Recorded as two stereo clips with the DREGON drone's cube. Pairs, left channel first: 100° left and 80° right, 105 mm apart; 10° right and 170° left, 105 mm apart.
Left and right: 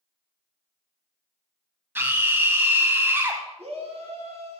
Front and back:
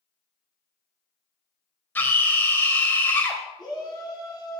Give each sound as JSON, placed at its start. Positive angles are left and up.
{"t": 1.9, "sound": "a scream", "azimuth_deg": -50, "distance_m": 1.3}
{"t": 3.6, "sound": "a shout", "azimuth_deg": -65, "distance_m": 4.5}